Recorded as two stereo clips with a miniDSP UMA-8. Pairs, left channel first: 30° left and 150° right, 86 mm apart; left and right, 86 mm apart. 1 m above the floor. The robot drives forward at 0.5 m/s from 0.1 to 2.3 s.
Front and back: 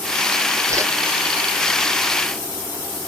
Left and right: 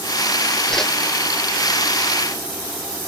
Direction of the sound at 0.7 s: 170° left.